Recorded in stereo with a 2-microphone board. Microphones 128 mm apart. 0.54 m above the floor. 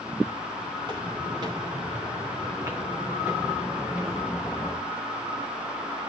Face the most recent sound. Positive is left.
turn(degrees=5)  # may be behind; listen again after turning